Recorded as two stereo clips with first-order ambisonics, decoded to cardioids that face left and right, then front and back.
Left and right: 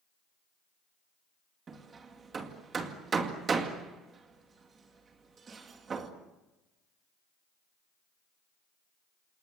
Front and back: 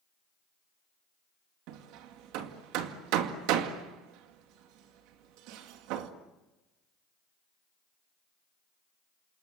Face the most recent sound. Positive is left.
turn(degrees=-160)